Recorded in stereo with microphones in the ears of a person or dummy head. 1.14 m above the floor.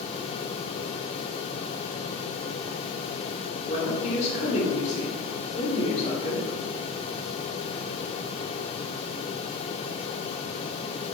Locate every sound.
3.7 s a woman speaking: 40° left (ahead or behind), 3.5 m